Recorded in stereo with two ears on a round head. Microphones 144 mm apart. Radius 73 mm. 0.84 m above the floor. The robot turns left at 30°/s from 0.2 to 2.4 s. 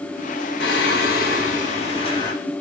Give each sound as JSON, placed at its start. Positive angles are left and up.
{"t": 0.6, "sound": "singing", "azimuth_deg": 75, "distance_m": 1.4}